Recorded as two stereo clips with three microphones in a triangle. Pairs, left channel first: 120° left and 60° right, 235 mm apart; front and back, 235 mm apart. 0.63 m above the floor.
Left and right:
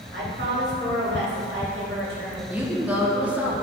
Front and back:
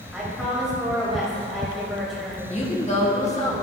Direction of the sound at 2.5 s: 15° left.